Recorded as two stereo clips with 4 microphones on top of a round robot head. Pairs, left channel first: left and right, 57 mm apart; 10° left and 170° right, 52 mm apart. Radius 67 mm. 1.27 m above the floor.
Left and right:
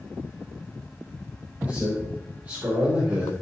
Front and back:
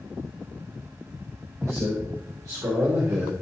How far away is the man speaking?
About 4.5 m.